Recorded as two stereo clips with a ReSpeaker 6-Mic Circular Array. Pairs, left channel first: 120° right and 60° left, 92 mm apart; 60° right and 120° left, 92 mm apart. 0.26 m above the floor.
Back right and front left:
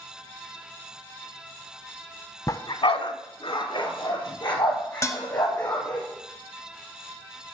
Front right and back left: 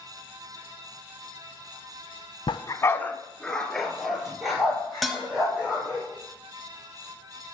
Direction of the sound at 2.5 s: 70° right.